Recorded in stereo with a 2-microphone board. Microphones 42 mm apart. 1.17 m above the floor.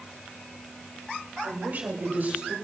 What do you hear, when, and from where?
1.4 s a woman speaking: 40° right (ahead or behind), 4 m; by 2.5 s 45° right (ahead or behind), 5 m